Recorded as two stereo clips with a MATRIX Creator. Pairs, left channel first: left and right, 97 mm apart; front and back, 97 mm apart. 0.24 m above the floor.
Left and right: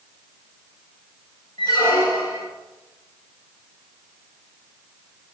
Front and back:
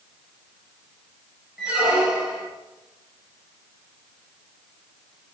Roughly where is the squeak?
Left.